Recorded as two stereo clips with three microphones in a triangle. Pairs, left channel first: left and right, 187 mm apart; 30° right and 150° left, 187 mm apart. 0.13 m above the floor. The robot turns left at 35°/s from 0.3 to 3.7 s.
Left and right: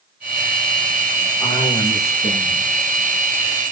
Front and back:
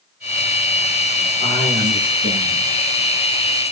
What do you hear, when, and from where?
1.4 s a man speaking: 170° left, 8 m; by 2.7 s 125° left, 8 m